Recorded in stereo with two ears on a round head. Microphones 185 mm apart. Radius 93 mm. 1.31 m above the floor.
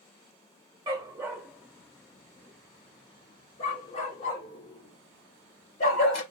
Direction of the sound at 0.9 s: 20° right (ahead or behind).